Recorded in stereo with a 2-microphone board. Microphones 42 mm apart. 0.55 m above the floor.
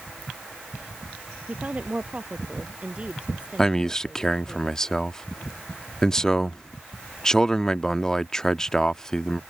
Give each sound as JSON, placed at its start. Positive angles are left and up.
{"t": 1.5, "sound": "a woman speaking", "side_deg": -35}
{"t": 3.6, "sound": "a man speaking", "side_deg": 15}